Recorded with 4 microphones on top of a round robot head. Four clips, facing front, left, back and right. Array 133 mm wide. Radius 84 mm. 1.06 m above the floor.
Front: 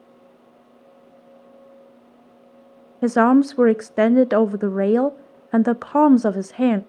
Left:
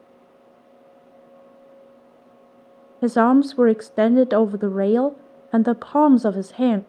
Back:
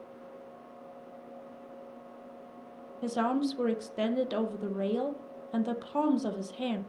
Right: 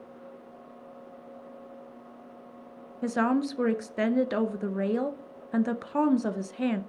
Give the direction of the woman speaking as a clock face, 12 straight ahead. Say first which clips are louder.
Left 10 dB, front 14 dB; 11 o'clock.